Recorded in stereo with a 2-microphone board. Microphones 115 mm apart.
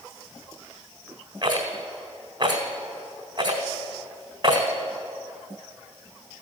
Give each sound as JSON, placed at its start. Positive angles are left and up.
{"t": 1.4, "sound": "a rattle", "side_deg": -40, "distance_m": 1.6}